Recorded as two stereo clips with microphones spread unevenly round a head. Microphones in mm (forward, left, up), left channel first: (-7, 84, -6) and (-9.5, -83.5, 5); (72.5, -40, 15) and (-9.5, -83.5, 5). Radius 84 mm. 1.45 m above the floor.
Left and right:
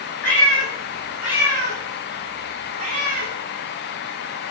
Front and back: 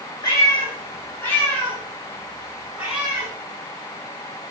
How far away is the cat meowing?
About 2 m.